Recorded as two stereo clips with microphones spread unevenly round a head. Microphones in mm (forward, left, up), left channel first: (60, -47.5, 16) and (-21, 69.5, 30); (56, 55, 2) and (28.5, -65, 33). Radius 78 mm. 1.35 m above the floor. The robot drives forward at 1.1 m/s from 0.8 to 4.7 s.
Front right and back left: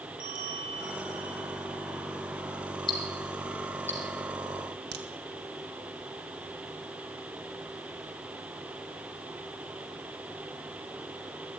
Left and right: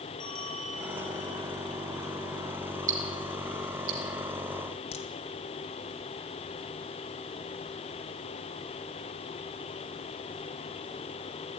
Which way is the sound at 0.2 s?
165° left.